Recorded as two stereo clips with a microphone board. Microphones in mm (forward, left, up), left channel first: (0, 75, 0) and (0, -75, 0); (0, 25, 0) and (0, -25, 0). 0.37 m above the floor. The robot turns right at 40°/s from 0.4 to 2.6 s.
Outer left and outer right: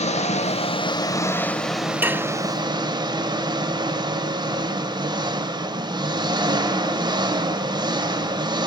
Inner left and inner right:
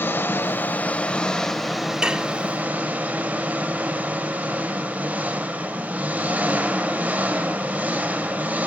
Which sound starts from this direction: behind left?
An engine running, at 0.0 s.